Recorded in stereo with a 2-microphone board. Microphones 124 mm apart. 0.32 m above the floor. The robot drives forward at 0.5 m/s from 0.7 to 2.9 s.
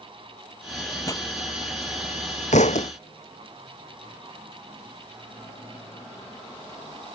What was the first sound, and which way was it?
A pop, 30° left (ahead or behind).